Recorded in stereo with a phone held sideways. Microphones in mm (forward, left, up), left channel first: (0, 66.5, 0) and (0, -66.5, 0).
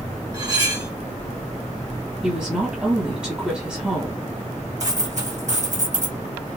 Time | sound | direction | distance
0.3 | cutlery clinking | 30° right (ahead or behind) | 1.7 m
2.2 | a woman speaking | 10° right (ahead or behind) | 1.5 m
4.8 | a dropped coin | 65° right (ahead or behind) | 2 m